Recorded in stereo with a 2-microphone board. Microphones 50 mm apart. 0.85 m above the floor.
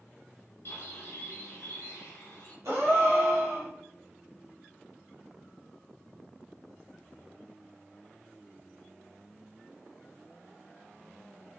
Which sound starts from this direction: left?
A bird, at 0.7 s.